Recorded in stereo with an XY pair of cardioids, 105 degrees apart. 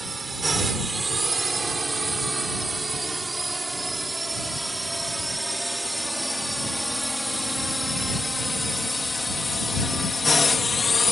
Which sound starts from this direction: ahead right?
A drone, at 0.0 s.